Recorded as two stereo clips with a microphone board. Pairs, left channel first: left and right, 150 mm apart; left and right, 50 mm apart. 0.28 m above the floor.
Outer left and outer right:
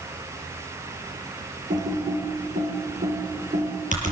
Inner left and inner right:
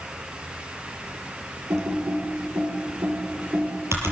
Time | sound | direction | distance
1.7 | typing on a keyboard | 60° right (ahead or behind) | 6 m